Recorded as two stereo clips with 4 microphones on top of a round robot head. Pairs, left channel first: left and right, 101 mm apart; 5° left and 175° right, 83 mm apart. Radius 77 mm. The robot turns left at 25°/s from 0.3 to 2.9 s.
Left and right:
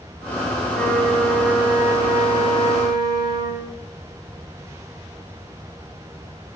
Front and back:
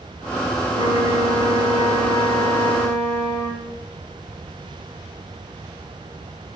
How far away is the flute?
About 0.7 m.